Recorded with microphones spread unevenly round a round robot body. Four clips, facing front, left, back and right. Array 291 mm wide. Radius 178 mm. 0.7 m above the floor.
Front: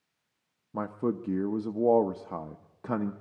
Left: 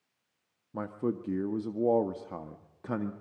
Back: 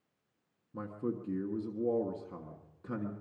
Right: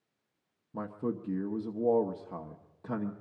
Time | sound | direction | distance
0.7 | a man speaking | 25° left | 1.0 m